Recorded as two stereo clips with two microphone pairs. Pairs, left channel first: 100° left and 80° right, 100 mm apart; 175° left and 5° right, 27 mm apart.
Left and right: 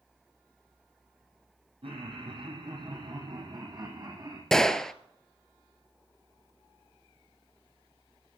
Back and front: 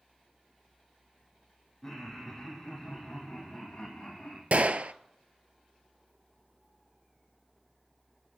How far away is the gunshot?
About 0.7 m.